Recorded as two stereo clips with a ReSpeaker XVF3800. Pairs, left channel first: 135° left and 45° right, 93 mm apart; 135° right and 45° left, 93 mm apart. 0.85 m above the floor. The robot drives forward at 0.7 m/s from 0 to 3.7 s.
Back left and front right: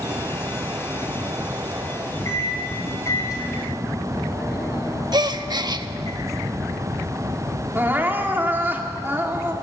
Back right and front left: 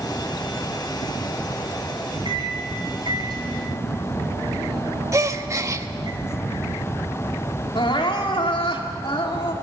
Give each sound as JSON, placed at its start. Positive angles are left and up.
{"t": 2.2, "sound": "a microwave", "azimuth_deg": 75, "distance_m": 5.0}
{"t": 5.1, "sound": "a gasp", "azimuth_deg": -10, "distance_m": 0.9}
{"t": 7.8, "sound": "crying", "azimuth_deg": -110, "distance_m": 2.0}